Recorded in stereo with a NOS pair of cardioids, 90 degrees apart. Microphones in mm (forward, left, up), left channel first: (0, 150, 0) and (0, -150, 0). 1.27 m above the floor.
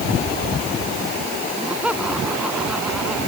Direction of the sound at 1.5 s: 5° right.